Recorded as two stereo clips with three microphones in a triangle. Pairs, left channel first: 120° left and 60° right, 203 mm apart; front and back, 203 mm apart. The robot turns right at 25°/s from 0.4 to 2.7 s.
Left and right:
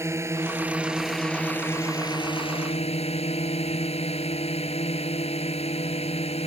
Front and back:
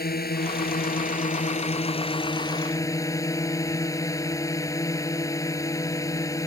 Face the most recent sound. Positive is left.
turn(degrees=70)